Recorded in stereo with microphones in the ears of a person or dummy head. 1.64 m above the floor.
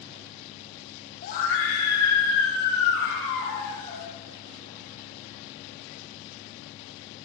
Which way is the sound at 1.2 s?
40° left (ahead or behind).